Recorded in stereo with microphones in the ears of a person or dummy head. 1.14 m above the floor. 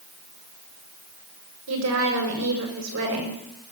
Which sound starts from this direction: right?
A woman speaking, at 1.7 s.